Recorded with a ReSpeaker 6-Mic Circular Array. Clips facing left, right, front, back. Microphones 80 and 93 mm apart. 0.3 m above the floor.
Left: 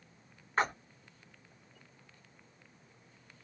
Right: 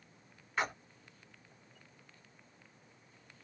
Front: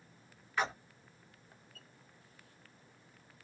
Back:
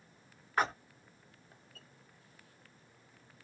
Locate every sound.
0.6 s a splash: 135° left, 1.0 m